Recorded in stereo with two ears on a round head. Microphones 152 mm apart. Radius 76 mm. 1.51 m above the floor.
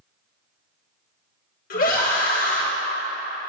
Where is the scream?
55° left (ahead or behind), 1.6 m.